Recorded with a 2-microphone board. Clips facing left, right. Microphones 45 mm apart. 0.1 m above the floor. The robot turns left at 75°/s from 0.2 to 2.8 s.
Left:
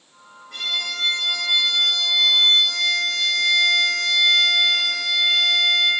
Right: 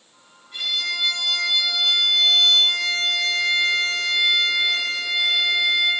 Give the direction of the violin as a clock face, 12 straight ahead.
9 o'clock.